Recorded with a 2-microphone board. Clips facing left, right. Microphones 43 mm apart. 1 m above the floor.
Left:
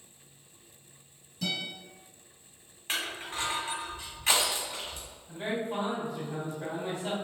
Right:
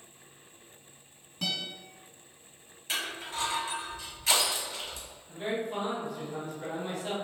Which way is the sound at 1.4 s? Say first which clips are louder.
Even; 55° right (ahead or behind).